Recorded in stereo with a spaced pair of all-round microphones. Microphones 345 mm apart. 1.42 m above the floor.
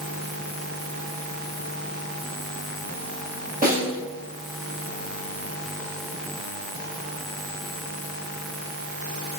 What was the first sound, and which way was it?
A snare drum, 25° right (ahead or behind).